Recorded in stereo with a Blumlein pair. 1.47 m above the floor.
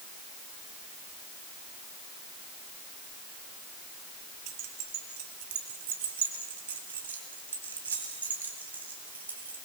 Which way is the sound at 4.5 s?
40° right.